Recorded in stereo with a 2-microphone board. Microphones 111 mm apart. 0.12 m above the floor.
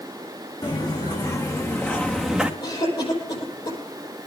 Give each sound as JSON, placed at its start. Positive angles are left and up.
{"t": 0.6, "sound": "footsteps", "side_deg": 40, "distance_m": 3.0}
{"t": 2.6, "sound": "a cough", "side_deg": 45, "distance_m": 5.5}